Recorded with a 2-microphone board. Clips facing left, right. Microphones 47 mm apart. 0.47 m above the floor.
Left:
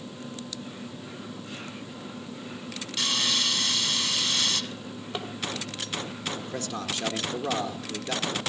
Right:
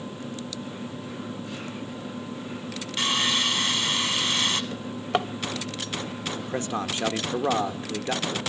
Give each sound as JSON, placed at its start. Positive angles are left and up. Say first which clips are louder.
{"t": 3.0, "sound": "sawing", "louder": "right 3 dB", "side_deg": -30, "distance_m": 1.5}
{"t": 4.7, "sound": "a drawer", "louder": "right 8 dB", "side_deg": -75, "distance_m": 0.9}
{"t": 6.4, "sound": "a man speaking", "louder": "right 5 dB", "side_deg": -30, "distance_m": 1.2}